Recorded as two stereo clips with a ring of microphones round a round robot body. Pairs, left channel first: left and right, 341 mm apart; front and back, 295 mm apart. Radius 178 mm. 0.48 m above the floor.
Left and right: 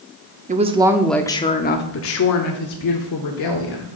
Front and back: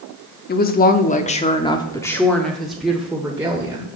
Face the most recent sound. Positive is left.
turn(degrees=100)